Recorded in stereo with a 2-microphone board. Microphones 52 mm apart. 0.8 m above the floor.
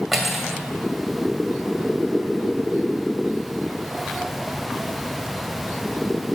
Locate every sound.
0.1 s cutlery clinking: 5° right (ahead or behind), 2 m